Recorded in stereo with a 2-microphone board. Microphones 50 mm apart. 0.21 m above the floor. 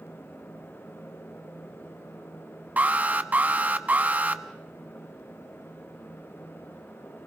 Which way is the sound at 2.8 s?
30° right (ahead or behind).